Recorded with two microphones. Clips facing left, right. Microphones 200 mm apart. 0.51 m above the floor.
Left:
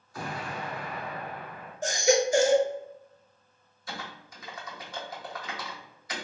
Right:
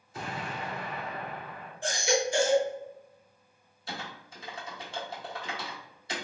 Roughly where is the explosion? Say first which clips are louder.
Left 1 dB; right.